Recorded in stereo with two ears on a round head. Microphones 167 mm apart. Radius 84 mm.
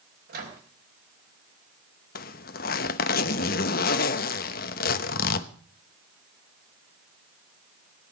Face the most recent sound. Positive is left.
turn(degrees=50)  # may be behind; listen again after turning